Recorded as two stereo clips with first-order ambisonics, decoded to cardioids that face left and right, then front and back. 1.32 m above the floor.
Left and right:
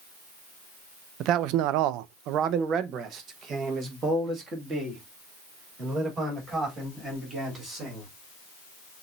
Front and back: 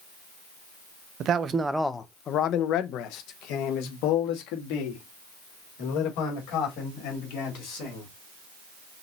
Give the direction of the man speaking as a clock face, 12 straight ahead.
4 o'clock.